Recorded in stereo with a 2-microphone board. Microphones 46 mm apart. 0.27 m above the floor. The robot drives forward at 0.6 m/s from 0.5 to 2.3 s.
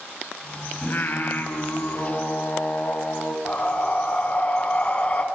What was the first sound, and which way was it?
Singing, 45° left (ahead or behind).